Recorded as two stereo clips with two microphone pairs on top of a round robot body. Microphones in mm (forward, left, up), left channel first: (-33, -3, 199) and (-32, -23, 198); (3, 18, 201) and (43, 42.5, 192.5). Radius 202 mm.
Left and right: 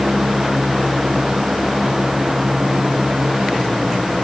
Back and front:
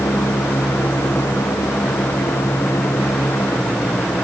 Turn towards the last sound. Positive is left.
No sound to turn to.